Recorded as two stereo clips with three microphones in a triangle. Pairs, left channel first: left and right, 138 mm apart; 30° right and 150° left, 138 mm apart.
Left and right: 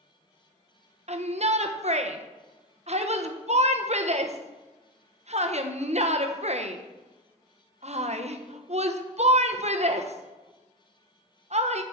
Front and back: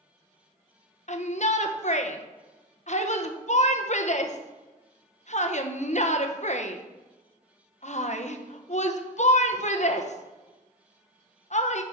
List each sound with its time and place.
1.1 s a shout: 55° right, 0.8 m